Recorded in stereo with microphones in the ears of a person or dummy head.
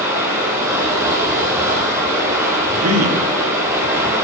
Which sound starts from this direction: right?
A man speaking, at 2.7 s.